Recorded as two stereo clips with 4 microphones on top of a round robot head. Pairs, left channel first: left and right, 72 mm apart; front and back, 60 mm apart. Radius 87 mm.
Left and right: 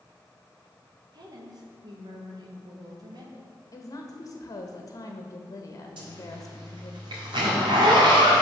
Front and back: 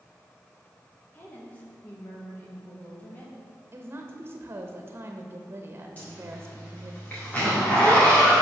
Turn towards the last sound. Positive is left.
turn(degrees=-70)